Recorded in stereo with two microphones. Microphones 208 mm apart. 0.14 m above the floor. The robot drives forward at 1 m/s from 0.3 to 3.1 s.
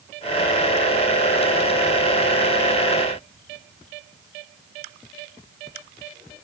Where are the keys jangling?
I don't hear keys jangling.